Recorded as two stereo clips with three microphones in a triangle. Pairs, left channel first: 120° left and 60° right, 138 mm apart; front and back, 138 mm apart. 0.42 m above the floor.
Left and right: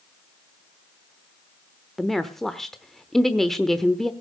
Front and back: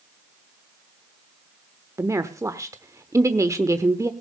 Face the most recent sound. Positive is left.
turn(degrees=-155)